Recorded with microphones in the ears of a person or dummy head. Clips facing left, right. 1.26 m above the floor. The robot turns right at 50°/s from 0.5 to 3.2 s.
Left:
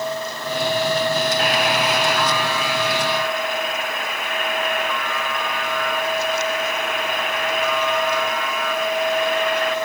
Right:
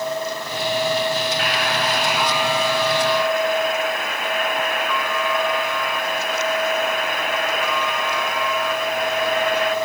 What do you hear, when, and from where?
1.4 s a buzzer: 145° left, 3.5 m; by 9.8 s 125° right, 3.5 m